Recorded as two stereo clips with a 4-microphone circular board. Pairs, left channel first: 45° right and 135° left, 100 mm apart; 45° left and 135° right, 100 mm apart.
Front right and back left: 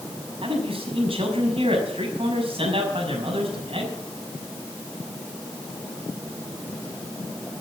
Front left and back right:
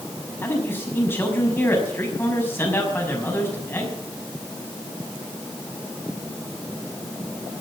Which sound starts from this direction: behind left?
A man speaking, at 0.4 s.